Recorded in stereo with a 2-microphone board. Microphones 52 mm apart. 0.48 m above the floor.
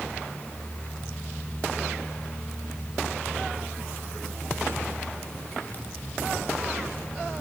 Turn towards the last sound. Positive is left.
No sound to turn to.